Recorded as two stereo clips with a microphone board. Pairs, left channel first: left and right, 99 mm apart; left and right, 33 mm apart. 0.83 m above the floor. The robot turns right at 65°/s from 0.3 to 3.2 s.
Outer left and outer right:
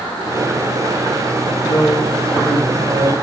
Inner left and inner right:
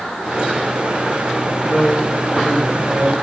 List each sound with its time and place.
1.6 s a man speaking: 145° left, 4 m; by 3.1 s 115° right, 4 m